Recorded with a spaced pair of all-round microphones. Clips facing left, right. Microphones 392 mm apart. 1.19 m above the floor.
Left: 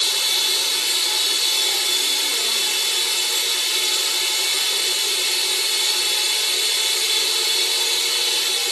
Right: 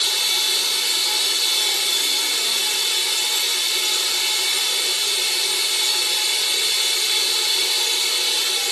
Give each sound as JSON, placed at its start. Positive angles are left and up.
{"t": 0.0, "sound": "running water", "side_deg": 90, "distance_m": 1.3}